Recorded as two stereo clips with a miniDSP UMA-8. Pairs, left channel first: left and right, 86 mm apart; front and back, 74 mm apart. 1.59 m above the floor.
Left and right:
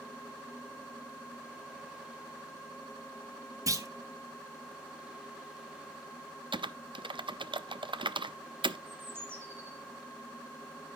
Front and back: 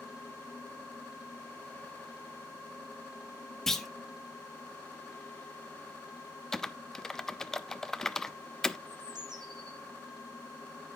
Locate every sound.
3.7 s a clunk: 85° right, 0.9 m
6.5 s typing on a keyboard: 85° right, 0.5 m
8.9 s a bird: 155° right, 2.5 m